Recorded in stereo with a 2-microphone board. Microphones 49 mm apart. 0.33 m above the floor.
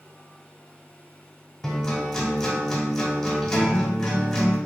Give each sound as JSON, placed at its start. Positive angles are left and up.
{"t": 1.6, "sound": "a guitar", "side_deg": 15, "distance_m": 0.8}